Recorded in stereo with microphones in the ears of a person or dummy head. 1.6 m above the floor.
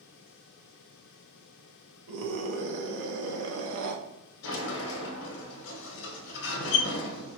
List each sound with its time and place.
2.1 s a scream: 80° right, 1.1 m
4.4 s a sliding door: 65° left (ahead or behind), 1.0 m